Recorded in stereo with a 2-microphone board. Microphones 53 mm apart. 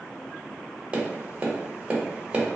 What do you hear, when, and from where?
0.9 s tapping: 20° right (ahead or behind), 0.8 m